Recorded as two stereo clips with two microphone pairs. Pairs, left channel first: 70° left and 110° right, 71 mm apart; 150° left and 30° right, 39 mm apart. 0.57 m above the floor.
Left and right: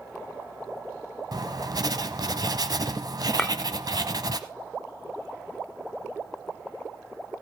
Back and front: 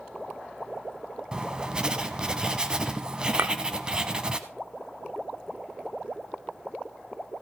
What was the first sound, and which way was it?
Writing, 100° right.